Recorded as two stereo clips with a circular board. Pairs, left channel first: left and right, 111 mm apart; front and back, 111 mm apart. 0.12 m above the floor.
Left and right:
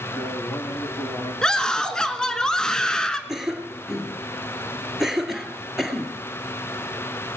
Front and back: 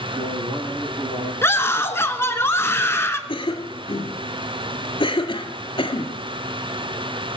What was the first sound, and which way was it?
A man speaking, 150° left.